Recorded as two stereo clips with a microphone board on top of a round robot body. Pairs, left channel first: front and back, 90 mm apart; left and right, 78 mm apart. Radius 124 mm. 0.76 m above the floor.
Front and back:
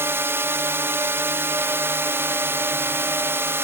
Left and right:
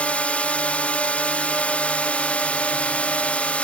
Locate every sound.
0.0 s a drone: 145° left